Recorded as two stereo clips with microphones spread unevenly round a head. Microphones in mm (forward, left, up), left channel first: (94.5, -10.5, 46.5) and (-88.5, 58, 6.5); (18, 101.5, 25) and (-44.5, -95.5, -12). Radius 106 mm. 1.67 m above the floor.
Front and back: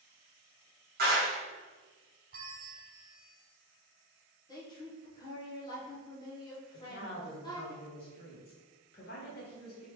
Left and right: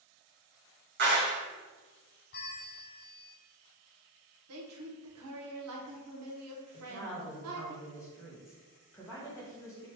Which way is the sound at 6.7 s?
5° left.